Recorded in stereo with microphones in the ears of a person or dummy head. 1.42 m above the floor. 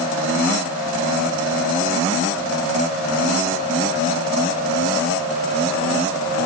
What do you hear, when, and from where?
Only background noise.